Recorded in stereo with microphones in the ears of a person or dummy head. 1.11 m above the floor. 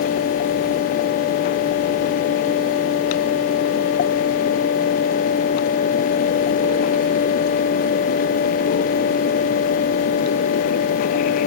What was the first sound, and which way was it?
Only background noise.